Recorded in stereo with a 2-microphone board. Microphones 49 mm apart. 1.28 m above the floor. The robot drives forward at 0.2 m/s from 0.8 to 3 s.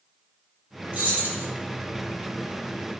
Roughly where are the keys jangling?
Right.